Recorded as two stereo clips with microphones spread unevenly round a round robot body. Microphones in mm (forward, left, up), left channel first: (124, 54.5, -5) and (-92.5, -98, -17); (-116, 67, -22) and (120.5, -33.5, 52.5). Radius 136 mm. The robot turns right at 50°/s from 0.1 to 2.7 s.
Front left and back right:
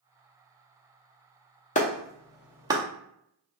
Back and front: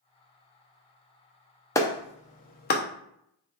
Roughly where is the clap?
Left.